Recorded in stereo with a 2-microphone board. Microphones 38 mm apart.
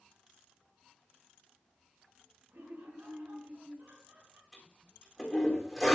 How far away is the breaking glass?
No breaking glass in this recording.